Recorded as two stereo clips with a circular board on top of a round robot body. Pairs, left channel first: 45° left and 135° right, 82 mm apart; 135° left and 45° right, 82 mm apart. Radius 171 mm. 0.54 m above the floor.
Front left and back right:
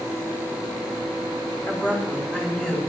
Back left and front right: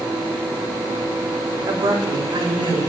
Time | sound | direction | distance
1.7 | a woman speaking | 15° right | 4.5 m